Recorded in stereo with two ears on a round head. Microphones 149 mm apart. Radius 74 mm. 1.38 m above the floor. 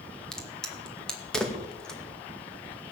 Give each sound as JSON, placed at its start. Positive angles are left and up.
{"t": 0.3, "sound": "a crack", "side_deg": 5, "distance_m": 2.0}